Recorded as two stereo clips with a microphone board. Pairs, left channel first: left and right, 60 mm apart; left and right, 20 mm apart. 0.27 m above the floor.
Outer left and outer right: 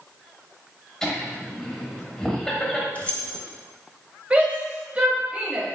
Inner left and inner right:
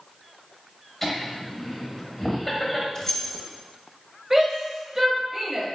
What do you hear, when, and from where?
1.0 s laughter: 5° left (ahead or behind), 1.0 m
3.0 s keys jangling: 25° left (ahead or behind), 0.7 m
4.3 s a shout: 20° right (ahead or behind), 1.1 m